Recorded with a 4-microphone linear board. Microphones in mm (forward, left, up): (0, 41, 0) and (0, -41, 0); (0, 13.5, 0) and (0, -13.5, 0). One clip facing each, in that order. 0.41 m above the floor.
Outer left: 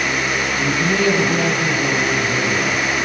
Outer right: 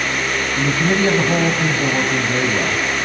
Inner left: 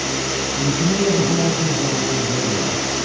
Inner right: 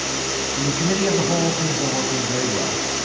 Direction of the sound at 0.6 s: 30° right (ahead or behind).